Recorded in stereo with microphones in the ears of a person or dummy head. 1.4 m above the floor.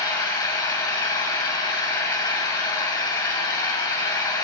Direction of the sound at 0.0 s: 20° left (ahead or behind).